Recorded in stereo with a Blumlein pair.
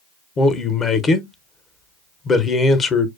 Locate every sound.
0.4 s a man speaking: 20° left, 0.7 m